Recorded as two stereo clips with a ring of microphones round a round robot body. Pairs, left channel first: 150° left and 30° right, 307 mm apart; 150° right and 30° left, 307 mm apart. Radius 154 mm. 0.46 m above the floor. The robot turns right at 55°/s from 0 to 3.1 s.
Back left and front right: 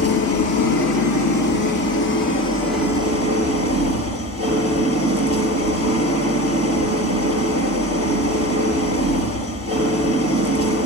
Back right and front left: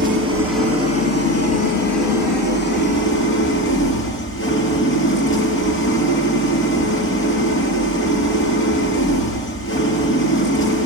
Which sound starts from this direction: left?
An engine running, at 0.0 s.